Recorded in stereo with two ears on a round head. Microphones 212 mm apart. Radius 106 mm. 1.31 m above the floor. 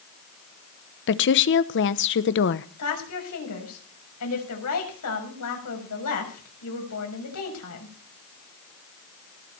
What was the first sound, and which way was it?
A woman speaking, 50° left (ahead or behind).